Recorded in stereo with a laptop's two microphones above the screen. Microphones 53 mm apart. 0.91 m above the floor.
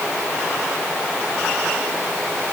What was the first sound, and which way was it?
Only background noise.